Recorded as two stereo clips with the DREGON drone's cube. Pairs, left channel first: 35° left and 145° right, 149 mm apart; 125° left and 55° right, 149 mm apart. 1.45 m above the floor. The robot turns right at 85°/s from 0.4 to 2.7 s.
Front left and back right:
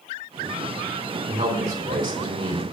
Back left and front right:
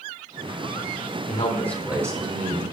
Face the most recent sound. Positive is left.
turn(degrees=-70)